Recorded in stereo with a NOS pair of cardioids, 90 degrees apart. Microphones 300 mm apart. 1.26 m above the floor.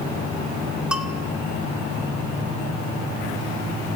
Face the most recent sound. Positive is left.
turn(degrees=-5)